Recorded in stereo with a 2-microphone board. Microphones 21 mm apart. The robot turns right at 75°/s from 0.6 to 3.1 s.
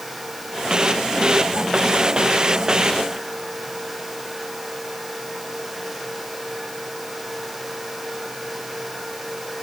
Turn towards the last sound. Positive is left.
No sound to turn to.